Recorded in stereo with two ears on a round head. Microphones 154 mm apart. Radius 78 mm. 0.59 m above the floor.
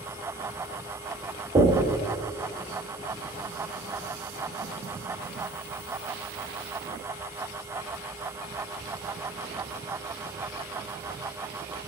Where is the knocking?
25° right (ahead or behind), 1.5 m.